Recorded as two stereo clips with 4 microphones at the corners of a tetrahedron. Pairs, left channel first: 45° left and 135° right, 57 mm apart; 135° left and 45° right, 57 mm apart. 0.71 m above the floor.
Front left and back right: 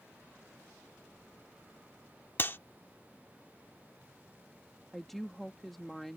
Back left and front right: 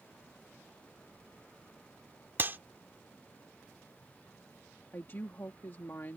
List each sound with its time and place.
2.4 s a clap: straight ahead
4.9 s a woman speaking: 130° left